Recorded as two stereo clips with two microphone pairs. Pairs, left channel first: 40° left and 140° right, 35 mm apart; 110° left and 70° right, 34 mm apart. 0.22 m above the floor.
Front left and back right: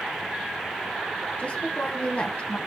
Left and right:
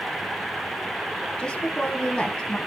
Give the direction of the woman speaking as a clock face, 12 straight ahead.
10 o'clock.